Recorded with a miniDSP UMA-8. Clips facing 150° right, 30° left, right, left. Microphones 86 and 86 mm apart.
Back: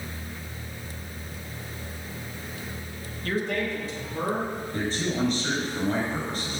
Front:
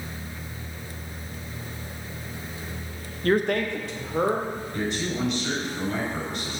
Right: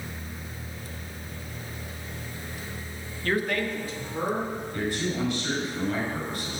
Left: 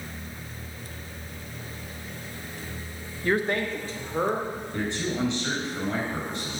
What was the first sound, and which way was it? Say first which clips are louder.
A man speaking: front 5 dB, left 2 dB; 20° left.